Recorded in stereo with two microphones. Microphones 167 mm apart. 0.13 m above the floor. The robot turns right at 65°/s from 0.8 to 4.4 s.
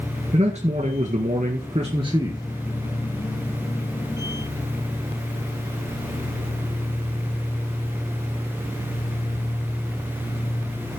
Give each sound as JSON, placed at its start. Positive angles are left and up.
{"t": 0.3, "sound": "a man speaking", "azimuth_deg": -120, "distance_m": 1.8}